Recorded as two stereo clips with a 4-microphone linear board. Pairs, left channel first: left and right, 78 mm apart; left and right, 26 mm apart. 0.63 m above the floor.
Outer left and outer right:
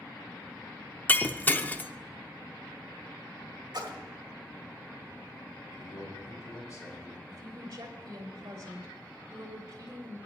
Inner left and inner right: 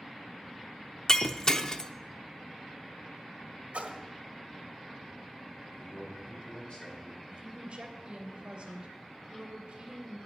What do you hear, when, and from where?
1.1 s breaking glass: 20° left (ahead or behind), 0.5 m
3.7 s a splash: 65° right (ahead or behind), 1.4 m
5.7 s a man speaking: 45° left (ahead or behind), 3 m
7.3 s a woman speaking: 40° right (ahead or behind), 2.5 m